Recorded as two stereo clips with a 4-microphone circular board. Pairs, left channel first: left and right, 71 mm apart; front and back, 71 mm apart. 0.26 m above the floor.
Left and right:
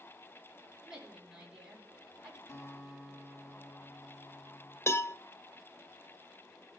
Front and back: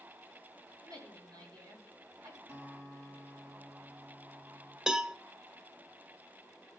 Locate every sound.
0.8 s a woman speaking: 165° right, 4.5 m
2.5 s a guitar: 140° left, 4 m
4.9 s a cowbell: 105° left, 0.5 m